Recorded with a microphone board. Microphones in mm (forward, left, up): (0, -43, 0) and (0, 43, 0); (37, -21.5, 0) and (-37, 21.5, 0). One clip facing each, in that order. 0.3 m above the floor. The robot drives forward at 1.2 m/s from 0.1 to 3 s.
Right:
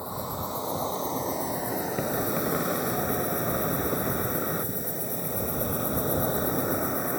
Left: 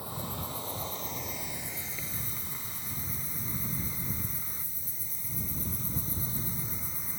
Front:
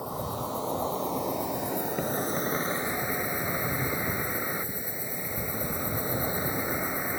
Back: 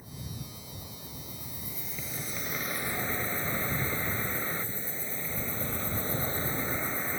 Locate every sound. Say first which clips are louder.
0.0 s an insect: right 6 dB, front 12 dB; 25° right; by 7.2 s 105° right